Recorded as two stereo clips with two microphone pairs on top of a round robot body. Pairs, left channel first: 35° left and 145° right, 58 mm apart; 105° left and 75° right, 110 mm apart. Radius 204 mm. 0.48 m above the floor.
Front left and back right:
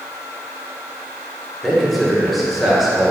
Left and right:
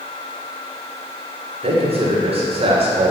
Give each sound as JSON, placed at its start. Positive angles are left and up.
{"t": 1.6, "sound": "a man speaking", "azimuth_deg": -55, "distance_m": 2.5}